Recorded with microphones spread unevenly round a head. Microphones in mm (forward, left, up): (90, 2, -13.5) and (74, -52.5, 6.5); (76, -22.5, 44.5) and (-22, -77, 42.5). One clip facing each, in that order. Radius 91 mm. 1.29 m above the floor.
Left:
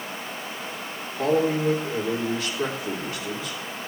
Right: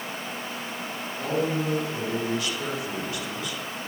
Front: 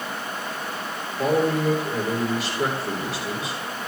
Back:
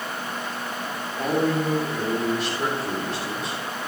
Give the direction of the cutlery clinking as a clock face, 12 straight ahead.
No cutlery clinking in this recording.